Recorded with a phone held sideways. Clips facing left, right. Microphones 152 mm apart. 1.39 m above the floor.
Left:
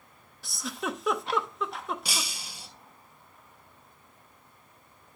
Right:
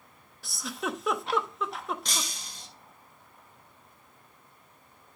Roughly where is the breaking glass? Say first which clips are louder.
Even; centre.